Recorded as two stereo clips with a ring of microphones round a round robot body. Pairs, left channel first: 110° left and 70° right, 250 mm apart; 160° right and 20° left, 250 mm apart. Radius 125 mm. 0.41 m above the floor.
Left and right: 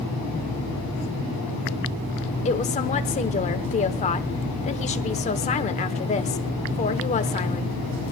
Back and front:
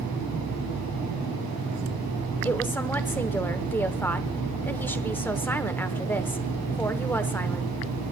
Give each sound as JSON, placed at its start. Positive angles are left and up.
{"t": 2.5, "sound": "a woman speaking", "azimuth_deg": 130, "distance_m": 0.9}